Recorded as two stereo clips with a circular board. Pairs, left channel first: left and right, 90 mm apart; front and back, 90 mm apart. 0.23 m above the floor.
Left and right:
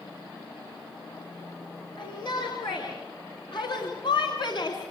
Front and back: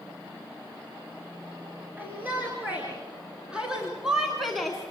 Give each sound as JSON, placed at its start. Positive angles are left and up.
{"t": 2.0, "sound": "a shout", "azimuth_deg": 110, "distance_m": 4.0}